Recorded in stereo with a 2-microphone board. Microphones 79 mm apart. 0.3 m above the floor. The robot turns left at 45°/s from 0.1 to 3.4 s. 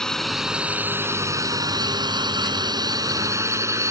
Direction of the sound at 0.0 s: 5° left (ahead or behind).